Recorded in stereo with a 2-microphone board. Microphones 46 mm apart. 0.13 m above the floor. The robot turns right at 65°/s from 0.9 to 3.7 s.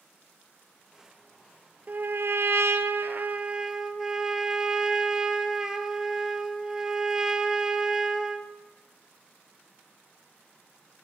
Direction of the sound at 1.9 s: 135° right.